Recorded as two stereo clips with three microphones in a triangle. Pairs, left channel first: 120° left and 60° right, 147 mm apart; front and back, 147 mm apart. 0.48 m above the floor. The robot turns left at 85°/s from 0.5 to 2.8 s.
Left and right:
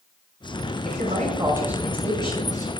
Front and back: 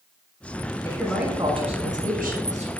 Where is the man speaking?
65° right, 5.5 m; by 2.7 s 135° left, 5.5 m.